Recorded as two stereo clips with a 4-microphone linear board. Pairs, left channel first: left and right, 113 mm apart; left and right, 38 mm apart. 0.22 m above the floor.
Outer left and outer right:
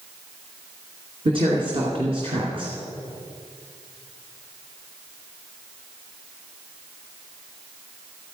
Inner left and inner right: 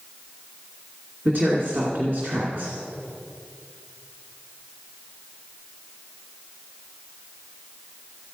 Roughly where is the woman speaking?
Right.